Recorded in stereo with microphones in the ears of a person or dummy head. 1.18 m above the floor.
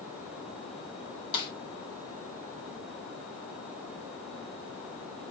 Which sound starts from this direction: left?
A snare drum, at 1.3 s.